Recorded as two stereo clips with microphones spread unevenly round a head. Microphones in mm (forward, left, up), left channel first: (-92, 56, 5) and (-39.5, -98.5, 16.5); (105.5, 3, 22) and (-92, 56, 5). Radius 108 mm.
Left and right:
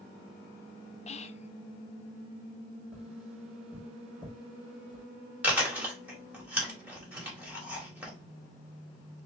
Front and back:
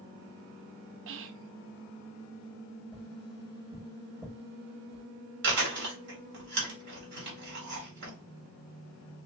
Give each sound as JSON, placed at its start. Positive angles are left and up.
{"t": 1.1, "sound": "whispering", "azimuth_deg": 155, "distance_m": 0.5}
{"t": 2.9, "sound": "tapping", "azimuth_deg": -155, "distance_m": 3.0}
{"t": 5.4, "sound": "chewing", "azimuth_deg": -150, "distance_m": 2.5}